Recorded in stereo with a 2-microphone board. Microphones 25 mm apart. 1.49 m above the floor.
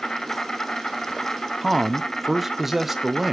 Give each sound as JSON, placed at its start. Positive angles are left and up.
{"t": 0.0, "sound": "an insect", "side_deg": 35, "distance_m": 0.9}
{"t": 1.6, "sound": "a man speaking", "side_deg": -10, "distance_m": 0.8}